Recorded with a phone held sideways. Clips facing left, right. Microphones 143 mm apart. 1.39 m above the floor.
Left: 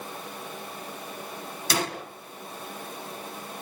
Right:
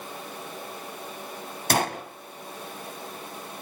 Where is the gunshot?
55° right (ahead or behind), 2.0 m.